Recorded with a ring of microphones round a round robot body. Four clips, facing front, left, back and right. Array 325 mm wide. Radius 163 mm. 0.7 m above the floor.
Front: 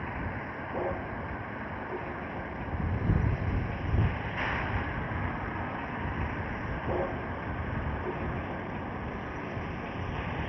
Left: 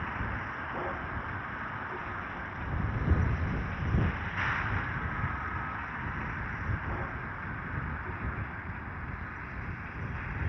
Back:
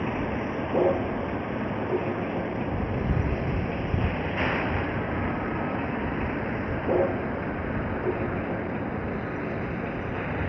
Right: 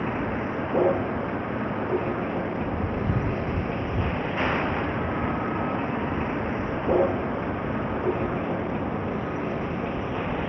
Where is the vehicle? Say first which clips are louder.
Right 10 dB, back 8 dB; 125° right; by 10.5 s 115° right.